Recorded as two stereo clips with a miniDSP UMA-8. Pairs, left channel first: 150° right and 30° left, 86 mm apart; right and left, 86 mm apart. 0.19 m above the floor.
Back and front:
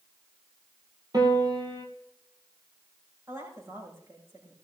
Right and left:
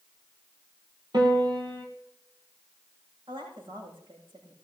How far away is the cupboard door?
No cupboard door in this recording.